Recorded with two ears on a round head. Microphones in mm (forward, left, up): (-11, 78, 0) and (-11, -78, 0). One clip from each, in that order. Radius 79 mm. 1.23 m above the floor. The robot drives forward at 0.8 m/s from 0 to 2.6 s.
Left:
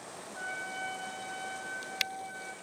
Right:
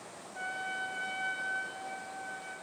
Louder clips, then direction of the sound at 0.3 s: Right 1 dB; 85° right.